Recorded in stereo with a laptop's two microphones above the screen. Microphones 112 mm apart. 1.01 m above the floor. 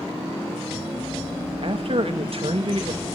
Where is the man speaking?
55° right (ahead or behind), 1.6 m.